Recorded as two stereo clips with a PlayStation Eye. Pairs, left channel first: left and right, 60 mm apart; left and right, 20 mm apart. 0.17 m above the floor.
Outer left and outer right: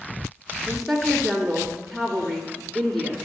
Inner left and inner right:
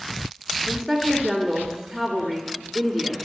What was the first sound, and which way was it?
A woman speaking, 5° left (ahead or behind).